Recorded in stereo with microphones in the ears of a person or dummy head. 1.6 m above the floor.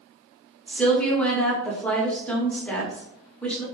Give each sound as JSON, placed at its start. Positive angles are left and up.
{"t": 0.7, "sound": "a woman speaking", "side_deg": 5, "distance_m": 0.8}